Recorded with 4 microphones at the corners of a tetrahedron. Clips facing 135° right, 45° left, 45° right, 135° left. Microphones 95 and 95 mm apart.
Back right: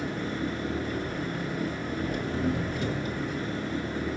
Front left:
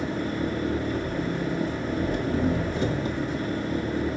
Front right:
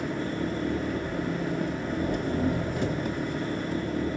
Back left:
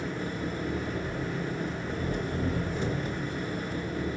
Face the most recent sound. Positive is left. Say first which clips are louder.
# front left 3 dB, front right 3 dB
turn(degrees=-15)